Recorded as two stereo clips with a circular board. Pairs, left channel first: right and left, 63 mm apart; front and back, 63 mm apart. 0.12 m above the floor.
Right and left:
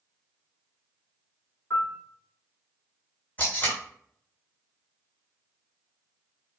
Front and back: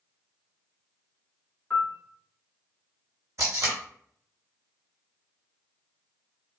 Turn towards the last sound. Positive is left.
turn(degrees=-155)